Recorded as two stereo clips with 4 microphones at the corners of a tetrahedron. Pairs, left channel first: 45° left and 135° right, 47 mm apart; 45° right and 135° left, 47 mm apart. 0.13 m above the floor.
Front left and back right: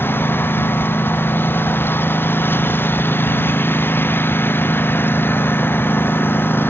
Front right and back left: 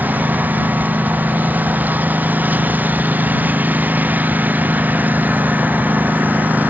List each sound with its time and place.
0.0 s a lawn mower: 85° left